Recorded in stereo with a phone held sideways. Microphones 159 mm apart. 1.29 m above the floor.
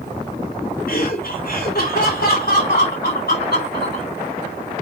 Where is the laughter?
65° left (ahead or behind), 5.5 m; by 4.1 s 85° left, 4.5 m.